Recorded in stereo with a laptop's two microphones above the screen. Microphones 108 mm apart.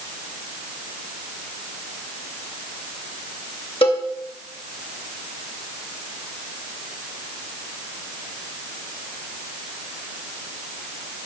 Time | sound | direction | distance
3.8 | a cowbell | 55° left (ahead or behind) | 2.5 m